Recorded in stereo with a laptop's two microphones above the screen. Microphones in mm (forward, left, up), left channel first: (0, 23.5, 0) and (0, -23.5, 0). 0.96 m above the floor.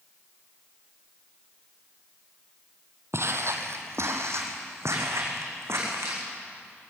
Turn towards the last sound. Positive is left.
turn(degrees=-70)  # may be behind; listen again after turning